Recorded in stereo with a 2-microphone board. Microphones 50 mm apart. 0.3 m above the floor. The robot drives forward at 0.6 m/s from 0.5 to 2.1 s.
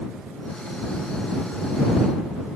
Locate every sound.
Only background noise.